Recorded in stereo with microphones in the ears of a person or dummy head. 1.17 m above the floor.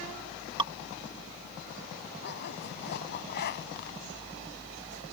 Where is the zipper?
50° left (ahead or behind).